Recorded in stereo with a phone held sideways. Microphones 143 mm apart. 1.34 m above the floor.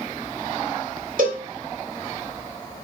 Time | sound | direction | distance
1.2 | a cowbell | 65° right (ahead or behind) | 1.9 m